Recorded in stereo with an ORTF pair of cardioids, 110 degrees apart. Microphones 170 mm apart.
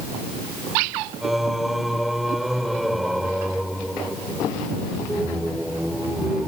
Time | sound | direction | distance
1.2 | singing | straight ahead | ?